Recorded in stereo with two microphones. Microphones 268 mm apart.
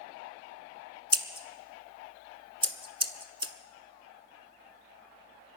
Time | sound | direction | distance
1.1 | scissors | 20° right (ahead or behind) | 0.9 m